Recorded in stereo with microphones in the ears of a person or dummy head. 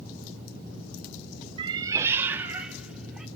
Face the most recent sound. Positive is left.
turn(degrees=-5)  # may be behind; listen again after turning